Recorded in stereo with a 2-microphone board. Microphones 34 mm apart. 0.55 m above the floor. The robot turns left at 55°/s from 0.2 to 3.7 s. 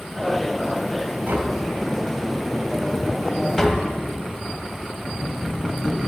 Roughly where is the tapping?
Right.